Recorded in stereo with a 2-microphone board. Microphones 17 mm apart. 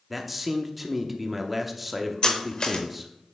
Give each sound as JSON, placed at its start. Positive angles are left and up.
{"t": 0.1, "sound": "a man speaking", "side_deg": -5, "distance_m": 0.7}
{"t": 2.2, "sound": "cutlery clinking", "side_deg": 50, "distance_m": 0.9}